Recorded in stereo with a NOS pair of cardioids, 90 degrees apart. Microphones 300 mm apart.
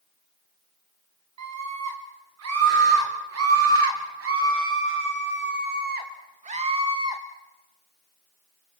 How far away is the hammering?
I don't hear hammering.